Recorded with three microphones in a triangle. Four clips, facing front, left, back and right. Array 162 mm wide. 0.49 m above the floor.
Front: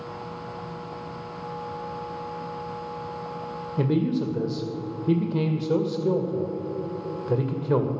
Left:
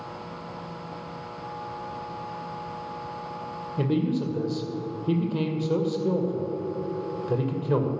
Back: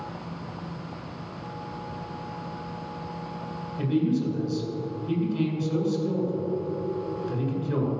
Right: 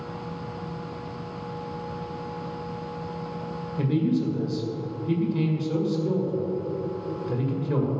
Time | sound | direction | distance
3.8 | a man speaking | 30° left | 1.9 m